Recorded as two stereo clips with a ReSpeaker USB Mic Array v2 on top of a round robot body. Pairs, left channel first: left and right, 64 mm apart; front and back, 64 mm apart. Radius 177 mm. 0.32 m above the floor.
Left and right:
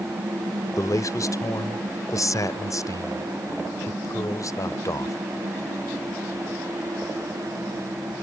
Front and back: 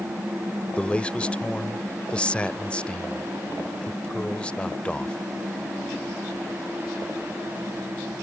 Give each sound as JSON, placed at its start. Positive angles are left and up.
{"t": 0.8, "sound": "a man speaking", "azimuth_deg": 70}